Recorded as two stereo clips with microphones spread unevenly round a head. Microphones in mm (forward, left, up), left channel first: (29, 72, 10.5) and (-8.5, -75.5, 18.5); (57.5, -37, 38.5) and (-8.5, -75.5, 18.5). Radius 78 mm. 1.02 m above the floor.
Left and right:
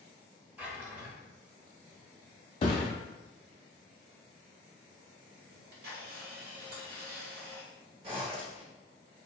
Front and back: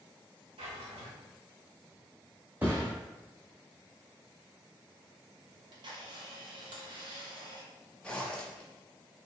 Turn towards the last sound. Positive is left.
turn(degrees=-45)